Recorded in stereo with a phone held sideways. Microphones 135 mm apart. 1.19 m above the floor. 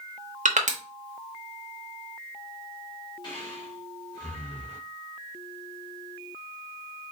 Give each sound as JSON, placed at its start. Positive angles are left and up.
{"t": 0.5, "sound": "crushing", "side_deg": -65, "distance_m": 0.9}
{"t": 3.2, "sound": "breathing", "side_deg": 30, "distance_m": 2.5}